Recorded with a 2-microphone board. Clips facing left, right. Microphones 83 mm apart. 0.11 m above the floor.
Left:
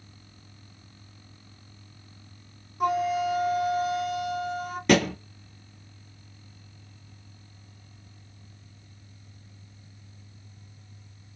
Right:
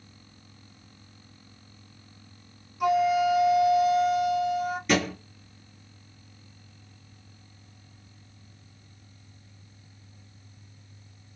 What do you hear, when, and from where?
2.8 s a flute: 40° left (ahead or behind), 1.1 m
4.9 s a thud: 65° left (ahead or behind), 0.7 m